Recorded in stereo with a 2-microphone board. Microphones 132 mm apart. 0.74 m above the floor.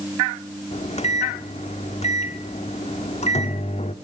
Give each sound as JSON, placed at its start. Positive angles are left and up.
{"t": 0.7, "sound": "a microwave", "side_deg": 65, "distance_m": 1.2}